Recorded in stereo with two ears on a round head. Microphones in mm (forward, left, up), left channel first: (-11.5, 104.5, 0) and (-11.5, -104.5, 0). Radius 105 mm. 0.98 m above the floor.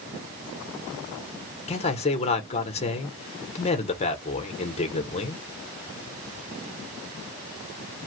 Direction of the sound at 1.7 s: 30° left (ahead or behind).